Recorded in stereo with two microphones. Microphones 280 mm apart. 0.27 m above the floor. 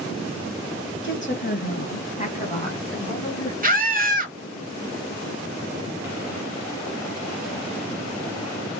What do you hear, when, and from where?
1.0 s a woman speaking: 40° left (ahead or behind), 1.4 m; by 3.5 s 15° left (ahead or behind), 3 m
3.6 s a scream: 30° right (ahead or behind), 1.1 m